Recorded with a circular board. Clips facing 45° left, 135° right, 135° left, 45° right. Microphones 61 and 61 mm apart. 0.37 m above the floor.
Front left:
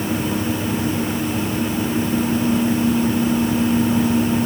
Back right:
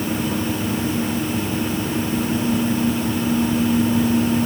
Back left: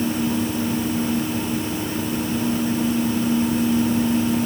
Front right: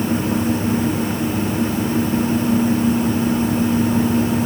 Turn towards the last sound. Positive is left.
No sound to turn to.